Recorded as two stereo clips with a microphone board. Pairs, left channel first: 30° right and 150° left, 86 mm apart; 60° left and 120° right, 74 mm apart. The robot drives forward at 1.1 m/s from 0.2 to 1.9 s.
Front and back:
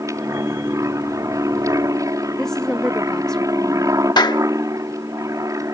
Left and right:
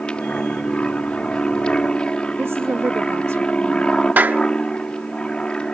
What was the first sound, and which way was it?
An aircraft, 130° left.